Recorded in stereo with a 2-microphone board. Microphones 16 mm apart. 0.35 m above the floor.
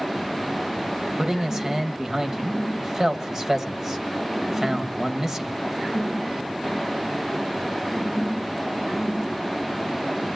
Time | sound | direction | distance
1.2 | a man speaking | 40° right (ahead or behind) | 1.7 m